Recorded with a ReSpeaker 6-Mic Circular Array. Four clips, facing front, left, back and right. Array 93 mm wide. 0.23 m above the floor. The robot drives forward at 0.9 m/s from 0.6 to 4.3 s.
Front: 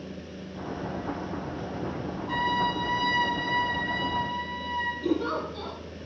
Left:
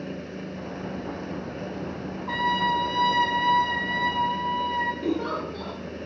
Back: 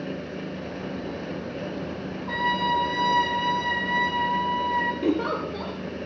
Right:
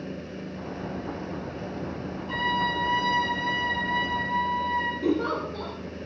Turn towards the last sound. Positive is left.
turn(degrees=180)